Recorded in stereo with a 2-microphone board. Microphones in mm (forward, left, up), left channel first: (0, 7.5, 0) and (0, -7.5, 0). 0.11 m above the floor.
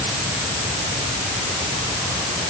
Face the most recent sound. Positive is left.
No sound to turn to.